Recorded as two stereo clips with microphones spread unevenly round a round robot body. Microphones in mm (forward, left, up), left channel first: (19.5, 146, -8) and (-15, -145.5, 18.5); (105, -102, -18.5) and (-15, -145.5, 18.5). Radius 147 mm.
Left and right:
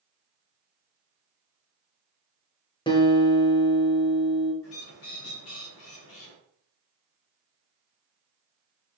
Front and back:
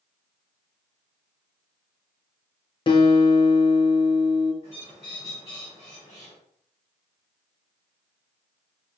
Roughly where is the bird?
Ahead left.